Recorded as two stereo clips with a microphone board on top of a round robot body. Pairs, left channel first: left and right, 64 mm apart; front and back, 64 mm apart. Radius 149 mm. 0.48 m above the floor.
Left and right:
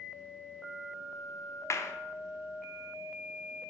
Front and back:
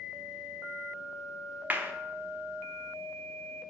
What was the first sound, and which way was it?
A clap, 120° left.